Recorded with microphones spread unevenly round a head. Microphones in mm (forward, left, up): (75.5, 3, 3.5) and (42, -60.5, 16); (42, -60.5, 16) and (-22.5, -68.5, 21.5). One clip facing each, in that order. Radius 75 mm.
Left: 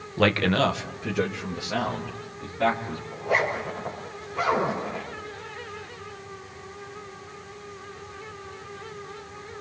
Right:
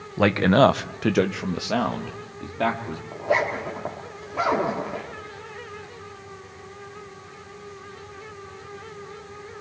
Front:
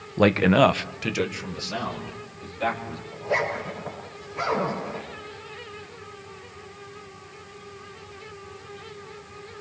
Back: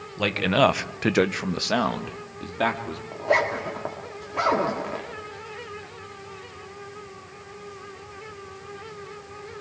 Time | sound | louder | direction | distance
0.2 | a man speaking | right 5 dB, front 3 dB | 40° right | 1.1 m
3.1 | a zipper | right 2 dB, back 3 dB | 155° right | 4 m